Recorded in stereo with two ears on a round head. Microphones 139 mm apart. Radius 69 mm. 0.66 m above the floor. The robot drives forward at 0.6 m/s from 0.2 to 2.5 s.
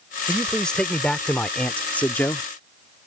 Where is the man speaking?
5° left (ahead or behind); by 2.5 s 10° left (ahead or behind).